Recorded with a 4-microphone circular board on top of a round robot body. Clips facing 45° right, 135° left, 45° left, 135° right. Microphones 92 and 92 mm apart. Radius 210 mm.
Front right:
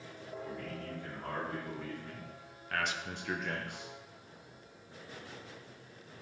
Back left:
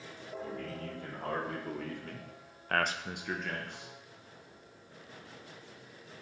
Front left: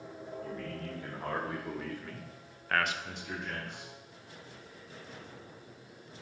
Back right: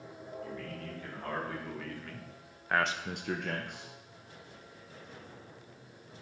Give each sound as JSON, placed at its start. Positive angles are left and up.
{"t": 0.4, "sound": "a man speaking", "azimuth_deg": 100, "distance_m": 3.0}